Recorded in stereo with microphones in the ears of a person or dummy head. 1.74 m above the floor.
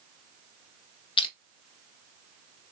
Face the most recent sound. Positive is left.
turn(degrees=25)  # may be behind; listen again after turning